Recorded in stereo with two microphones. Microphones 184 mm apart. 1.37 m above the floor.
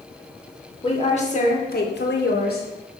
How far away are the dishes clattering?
I don't hear dishes clattering.